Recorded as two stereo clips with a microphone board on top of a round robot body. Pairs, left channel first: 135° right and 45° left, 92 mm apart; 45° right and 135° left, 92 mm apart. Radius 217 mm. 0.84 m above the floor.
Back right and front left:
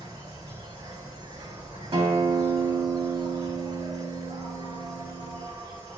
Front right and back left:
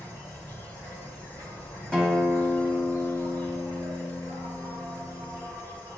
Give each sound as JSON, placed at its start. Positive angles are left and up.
{"t": 0.0, "sound": "an insect", "azimuth_deg": 15, "distance_m": 2.5}
{"t": 1.9, "sound": "a guitar", "azimuth_deg": 35, "distance_m": 3.0}